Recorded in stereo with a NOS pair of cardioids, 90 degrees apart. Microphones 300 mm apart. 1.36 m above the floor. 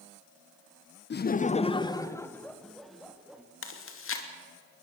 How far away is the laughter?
About 0.9 m.